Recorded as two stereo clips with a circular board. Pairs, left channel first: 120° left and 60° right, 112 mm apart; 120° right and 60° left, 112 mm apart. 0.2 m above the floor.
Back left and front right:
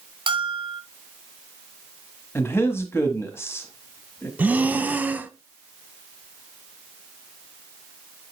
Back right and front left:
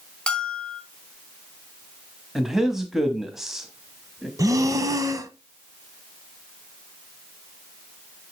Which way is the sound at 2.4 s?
140° left.